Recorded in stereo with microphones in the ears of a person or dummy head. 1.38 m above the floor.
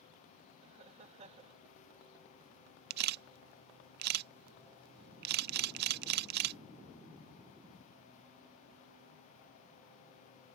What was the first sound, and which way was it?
Laughter, 35° right (ahead or behind).